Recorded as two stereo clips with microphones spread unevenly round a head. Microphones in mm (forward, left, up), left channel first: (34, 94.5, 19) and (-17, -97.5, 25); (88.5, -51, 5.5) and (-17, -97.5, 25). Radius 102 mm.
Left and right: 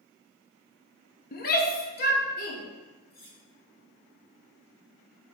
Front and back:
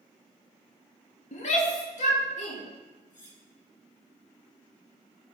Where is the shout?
35° left, 1.2 m.